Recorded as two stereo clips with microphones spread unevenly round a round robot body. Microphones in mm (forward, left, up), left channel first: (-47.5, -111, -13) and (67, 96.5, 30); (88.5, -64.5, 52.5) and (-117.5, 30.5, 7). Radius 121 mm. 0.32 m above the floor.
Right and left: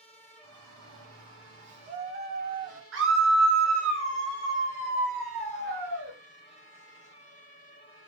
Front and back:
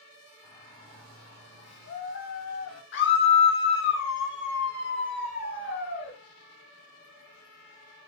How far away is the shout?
About 3 m.